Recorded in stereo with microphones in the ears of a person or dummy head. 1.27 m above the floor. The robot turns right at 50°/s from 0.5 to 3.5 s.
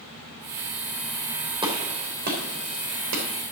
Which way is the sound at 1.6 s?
25° right (ahead or behind).